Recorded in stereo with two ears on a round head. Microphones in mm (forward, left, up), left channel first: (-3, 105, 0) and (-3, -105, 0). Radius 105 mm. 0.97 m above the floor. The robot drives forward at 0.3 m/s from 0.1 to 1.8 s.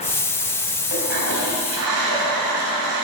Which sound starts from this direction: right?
A toilet flushing, at 0.9 s.